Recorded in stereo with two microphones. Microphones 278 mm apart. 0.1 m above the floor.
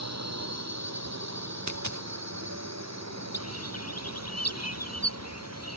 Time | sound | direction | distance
0.0 | a drone | 65° right (ahead or behind) | ?
1.7 | a dropped coin | 85° right | ?
3.3 | a bird | 65° left (ahead or behind) | ?